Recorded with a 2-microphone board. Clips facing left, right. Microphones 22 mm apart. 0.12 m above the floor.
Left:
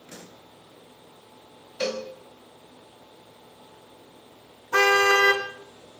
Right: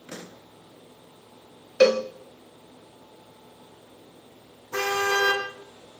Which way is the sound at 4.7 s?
45° left (ahead or behind).